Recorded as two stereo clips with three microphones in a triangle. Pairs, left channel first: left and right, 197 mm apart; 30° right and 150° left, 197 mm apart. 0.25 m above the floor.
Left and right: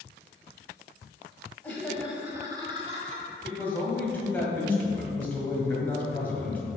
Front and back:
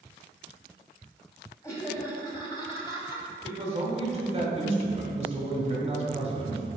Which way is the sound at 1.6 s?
20° left.